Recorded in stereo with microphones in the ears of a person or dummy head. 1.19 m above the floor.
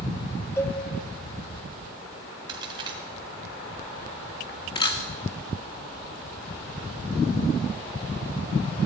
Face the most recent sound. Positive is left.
turn(degrees=30)  # may be behind; listen again after turning